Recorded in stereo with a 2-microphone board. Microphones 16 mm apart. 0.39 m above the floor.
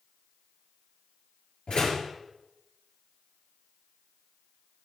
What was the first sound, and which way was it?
A door slam, 75° left (ahead or behind).